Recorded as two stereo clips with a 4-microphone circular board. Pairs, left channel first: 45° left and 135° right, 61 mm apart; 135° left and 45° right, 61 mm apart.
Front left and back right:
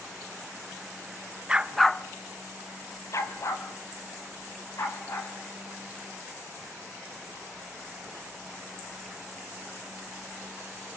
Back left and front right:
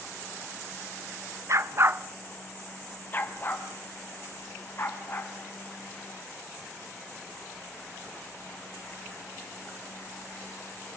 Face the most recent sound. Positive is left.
turn(degrees=85)